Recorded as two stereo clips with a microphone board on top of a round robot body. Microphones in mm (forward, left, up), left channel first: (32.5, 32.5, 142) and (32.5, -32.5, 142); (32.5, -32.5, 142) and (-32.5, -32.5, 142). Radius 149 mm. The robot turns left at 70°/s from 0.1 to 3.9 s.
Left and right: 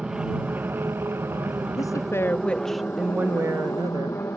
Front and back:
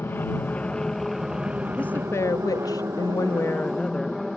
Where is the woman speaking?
70° left; by 4.2 s 80° right.